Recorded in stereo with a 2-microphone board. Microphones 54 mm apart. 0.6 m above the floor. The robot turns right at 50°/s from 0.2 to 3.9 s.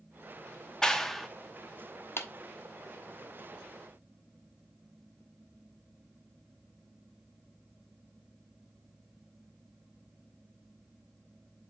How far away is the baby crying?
I don't hear a baby crying.